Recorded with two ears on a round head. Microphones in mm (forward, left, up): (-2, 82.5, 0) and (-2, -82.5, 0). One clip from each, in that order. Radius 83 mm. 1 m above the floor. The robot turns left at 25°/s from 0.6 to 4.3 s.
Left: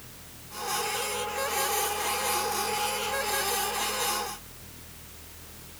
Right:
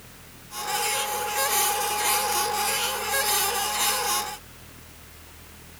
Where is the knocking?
No knocking in this recording.